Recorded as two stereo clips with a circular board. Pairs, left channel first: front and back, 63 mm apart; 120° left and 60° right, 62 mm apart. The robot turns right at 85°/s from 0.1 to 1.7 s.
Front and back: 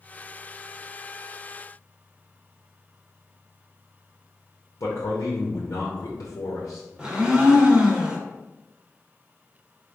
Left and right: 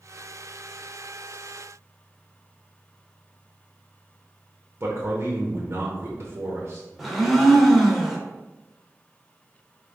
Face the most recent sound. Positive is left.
turn(degrees=-150)